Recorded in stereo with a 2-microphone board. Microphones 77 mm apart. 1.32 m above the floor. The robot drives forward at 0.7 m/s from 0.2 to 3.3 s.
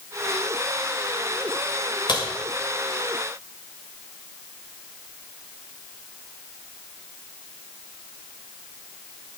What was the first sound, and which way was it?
A crack, 70° left (ahead or behind).